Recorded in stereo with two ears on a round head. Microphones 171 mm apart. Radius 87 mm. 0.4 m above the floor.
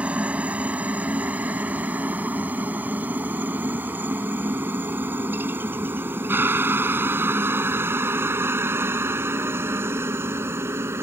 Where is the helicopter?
5° right (ahead or behind); by 11.0 s 15° right (ahead or behind).